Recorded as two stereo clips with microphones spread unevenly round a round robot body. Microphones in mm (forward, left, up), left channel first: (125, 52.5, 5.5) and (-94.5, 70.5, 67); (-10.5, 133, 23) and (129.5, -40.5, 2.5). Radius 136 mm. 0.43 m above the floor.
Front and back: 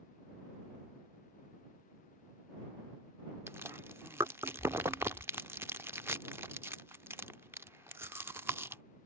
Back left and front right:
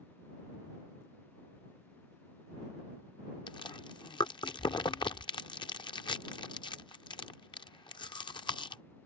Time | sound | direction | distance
3.5 | chewing | 75° left | ?